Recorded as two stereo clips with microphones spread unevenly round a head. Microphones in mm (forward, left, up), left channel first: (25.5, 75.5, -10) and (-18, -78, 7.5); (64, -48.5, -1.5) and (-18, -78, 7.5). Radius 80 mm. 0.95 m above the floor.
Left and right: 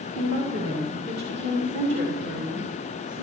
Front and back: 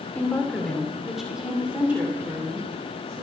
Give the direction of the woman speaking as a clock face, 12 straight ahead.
2 o'clock.